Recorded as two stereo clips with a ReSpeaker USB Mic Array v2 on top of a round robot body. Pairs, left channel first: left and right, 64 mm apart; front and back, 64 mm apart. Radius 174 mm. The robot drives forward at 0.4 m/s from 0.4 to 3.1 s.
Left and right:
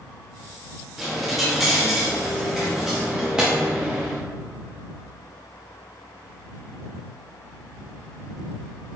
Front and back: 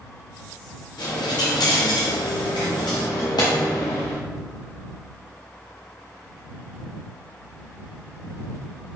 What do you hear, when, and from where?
1.0 s a dropped coin: straight ahead, 1.2 m; by 4.2 s 10° right, 0.5 m